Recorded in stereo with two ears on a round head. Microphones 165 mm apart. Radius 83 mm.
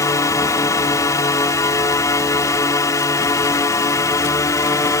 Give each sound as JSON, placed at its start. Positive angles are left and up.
{"t": 0.0, "sound": "a drone", "side_deg": 15}